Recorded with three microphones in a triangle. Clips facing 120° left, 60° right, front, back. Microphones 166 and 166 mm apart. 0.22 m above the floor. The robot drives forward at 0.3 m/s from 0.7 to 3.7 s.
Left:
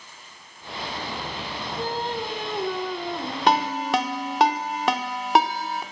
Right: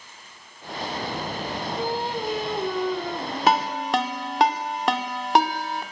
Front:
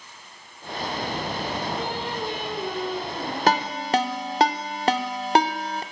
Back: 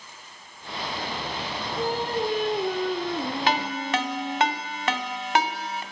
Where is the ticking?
I don't hear ticking.